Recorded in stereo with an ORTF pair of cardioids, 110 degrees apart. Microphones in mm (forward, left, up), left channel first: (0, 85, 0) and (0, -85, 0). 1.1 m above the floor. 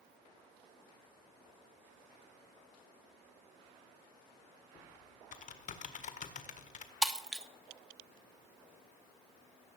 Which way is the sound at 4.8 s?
55° left.